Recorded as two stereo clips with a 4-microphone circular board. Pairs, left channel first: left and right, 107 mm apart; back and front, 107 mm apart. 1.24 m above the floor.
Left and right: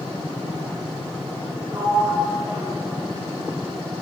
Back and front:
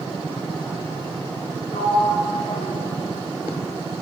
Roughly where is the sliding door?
Behind right.